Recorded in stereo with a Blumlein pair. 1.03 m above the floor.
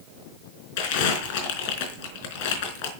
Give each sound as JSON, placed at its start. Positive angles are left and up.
{"t": 0.8, "sound": "crumpling", "azimuth_deg": 45, "distance_m": 4.5}